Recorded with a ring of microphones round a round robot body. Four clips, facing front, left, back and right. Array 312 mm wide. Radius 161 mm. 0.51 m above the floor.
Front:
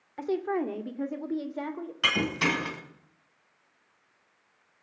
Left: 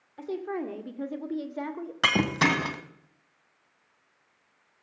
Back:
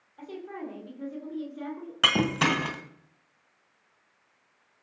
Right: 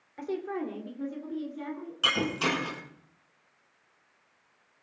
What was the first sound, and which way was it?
A woman speaking, 10° right.